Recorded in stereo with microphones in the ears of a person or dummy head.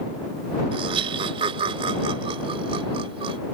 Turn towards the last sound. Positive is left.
turn(degrees=-30)  # may be behind; listen again after turning